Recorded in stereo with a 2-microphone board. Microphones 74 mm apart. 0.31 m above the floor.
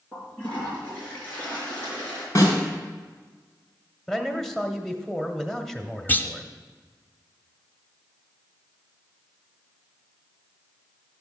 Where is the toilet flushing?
20° left (ahead or behind), 4.5 m.